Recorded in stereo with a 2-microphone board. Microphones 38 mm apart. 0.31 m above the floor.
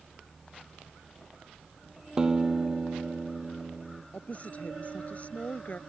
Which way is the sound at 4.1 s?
40° left (ahead or behind).